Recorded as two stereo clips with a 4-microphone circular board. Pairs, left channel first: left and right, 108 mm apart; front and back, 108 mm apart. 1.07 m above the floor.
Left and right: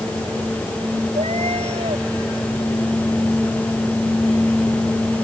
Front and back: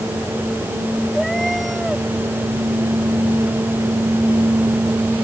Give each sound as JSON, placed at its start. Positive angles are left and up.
{"t": 1.1, "sound": "a cat meowing", "azimuth_deg": -90}